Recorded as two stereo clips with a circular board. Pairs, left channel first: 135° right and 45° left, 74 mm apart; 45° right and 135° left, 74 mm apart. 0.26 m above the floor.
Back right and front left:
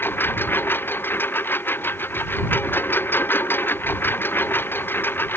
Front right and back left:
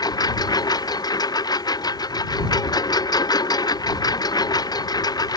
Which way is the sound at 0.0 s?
75° right.